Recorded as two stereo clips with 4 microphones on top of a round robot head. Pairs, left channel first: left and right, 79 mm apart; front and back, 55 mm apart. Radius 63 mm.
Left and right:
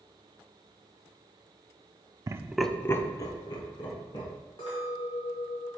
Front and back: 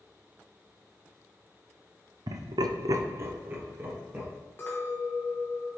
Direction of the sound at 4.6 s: 45° left.